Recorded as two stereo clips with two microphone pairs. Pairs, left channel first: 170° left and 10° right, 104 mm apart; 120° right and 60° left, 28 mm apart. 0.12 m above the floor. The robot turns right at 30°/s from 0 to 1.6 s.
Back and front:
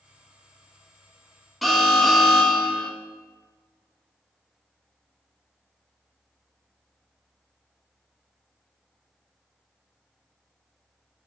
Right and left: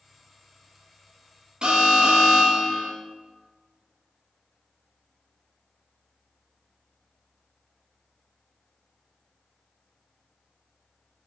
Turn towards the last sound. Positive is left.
turn(degrees=85)